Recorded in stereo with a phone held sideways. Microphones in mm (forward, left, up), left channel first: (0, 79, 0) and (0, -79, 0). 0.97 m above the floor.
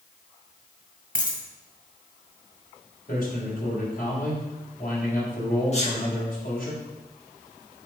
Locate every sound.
1.1 s a dropped coin: 60° left (ahead or behind), 2.0 m
3.1 s a man speaking: 60° left (ahead or behind), 3.5 m
5.7 s a sneeze: 45° left (ahead or behind), 1.8 m